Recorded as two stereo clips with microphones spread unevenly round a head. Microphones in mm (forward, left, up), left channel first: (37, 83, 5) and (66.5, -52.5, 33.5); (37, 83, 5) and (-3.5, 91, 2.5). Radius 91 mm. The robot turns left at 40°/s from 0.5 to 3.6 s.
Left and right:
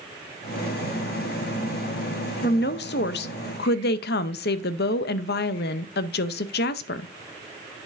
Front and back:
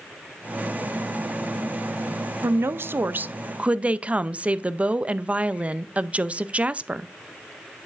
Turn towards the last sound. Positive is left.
turn(degrees=105)